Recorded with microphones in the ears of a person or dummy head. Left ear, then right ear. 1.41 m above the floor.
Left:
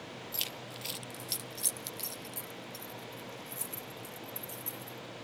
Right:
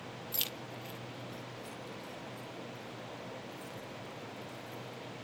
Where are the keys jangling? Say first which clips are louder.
Even; 15° right (ahead or behind), 0.7 m; by 5.0 s 55° left (ahead or behind), 3.5 m.